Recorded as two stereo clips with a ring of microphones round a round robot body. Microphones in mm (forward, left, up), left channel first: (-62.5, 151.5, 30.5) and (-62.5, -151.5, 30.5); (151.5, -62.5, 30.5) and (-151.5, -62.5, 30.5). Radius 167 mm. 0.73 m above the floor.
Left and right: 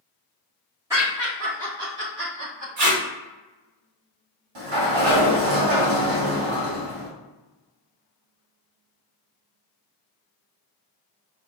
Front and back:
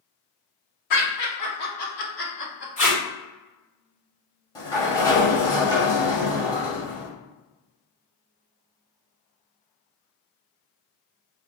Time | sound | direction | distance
0.9 | laughter | 10° right | 1.6 m
2.8 | tape being pulled | 65° right | 1.7 m
4.5 | a sliding door | 80° right | 1.5 m